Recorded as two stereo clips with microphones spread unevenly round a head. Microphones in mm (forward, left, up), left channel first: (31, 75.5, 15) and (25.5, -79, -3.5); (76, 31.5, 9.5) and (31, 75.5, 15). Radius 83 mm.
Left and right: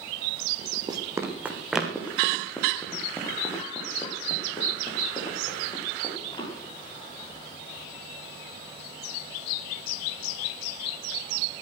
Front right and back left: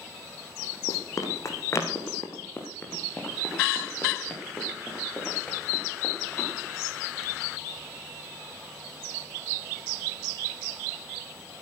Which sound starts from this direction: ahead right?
Running footsteps, at 0.9 s.